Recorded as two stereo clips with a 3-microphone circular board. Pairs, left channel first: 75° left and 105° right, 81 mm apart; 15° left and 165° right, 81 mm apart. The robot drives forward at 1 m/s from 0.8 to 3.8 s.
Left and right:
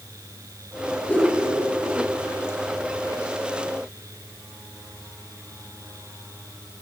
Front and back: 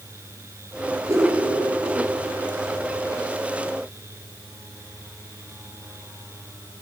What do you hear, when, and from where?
1.1 s a whoosh: 145° left, 8.5 m